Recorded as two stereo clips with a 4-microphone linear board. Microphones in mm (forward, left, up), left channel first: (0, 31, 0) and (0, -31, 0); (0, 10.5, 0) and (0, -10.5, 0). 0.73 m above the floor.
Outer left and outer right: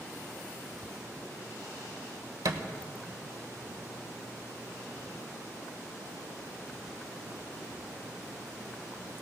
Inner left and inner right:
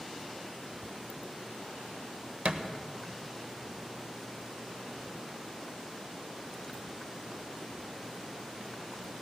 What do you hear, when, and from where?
2.5 s a thud: 85° right, 1.1 m